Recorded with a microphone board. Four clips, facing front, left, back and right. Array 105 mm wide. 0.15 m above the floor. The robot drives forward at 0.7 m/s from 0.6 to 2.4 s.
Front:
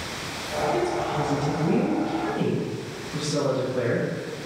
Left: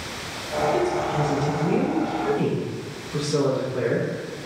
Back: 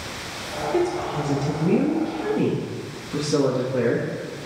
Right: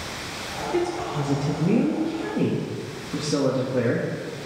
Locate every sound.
0.7 s a woman speaking: 100° right, 2.5 m; by 4.1 s 125° right, 3 m